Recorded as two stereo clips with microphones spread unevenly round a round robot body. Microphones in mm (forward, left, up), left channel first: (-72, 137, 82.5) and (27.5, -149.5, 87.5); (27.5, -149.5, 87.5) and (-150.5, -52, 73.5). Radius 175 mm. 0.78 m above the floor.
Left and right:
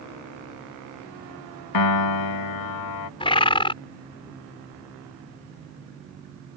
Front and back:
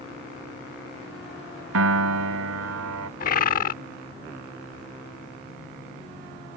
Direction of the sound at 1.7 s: 130° left.